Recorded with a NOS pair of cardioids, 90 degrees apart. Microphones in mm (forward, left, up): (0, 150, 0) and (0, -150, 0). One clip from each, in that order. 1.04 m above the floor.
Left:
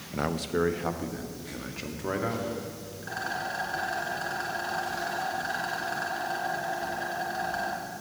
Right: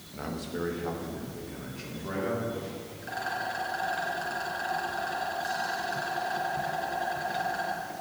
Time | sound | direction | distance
0.1 | a man speaking | 50° left | 0.7 m
3.0 | a rattle | 15° left | 4 m